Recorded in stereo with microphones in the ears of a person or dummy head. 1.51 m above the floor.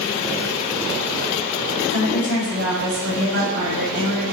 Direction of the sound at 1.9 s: 80° right.